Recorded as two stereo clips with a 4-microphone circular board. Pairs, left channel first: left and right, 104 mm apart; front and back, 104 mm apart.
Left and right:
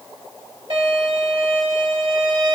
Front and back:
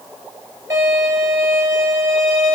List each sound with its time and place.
0.7 s a violin: 115° right, 2 m